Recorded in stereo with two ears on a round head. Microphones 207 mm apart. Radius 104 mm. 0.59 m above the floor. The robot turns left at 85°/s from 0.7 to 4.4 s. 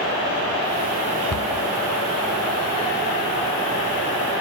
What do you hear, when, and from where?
1.3 s a cupboard door: 80° left, 1.5 m; by 1.7 s 60° left (ahead or behind), 1.5 m